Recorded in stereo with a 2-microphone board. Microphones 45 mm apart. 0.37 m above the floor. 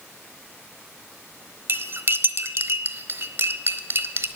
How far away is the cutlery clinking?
About 1.1 m.